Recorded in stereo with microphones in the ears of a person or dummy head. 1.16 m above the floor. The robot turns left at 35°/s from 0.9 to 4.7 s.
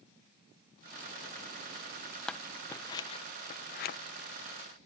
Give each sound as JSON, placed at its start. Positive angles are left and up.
{"t": 2.3, "sound": "scissors", "side_deg": 5}